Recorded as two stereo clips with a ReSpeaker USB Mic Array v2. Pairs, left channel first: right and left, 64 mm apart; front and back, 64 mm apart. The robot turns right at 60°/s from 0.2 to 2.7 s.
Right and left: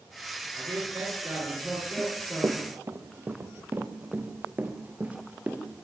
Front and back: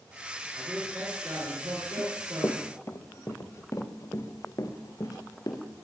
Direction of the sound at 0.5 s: 100° left.